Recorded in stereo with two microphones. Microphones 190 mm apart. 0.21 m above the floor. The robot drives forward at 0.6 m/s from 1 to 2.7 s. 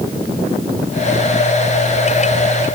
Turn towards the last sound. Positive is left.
No sound to turn to.